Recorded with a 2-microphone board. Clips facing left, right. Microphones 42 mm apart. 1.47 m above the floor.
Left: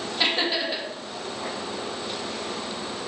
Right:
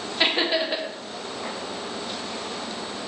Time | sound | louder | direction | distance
0.2 | laughter | right 2 dB | 15° right (ahead or behind) | 0.6 m